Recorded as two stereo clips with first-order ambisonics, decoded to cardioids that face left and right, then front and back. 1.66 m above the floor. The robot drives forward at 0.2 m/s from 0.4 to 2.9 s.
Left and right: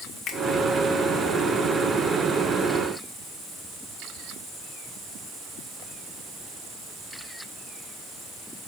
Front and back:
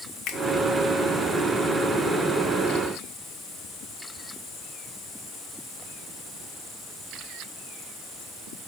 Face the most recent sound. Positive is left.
turn(degrees=80)